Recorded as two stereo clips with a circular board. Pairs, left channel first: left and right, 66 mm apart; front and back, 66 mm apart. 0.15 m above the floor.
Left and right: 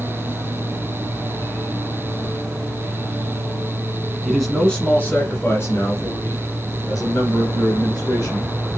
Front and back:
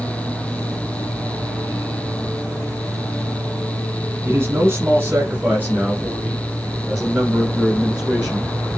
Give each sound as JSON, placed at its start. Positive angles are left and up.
{"t": 4.2, "sound": "a man speaking", "azimuth_deg": -175, "distance_m": 1.4}